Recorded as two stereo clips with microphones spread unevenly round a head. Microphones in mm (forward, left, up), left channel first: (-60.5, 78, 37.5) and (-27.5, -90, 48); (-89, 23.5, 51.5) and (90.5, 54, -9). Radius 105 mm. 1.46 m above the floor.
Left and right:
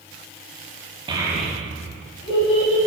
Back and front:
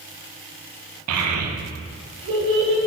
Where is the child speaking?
10° right, 1.0 m; by 2.8 s 35° left, 2.5 m.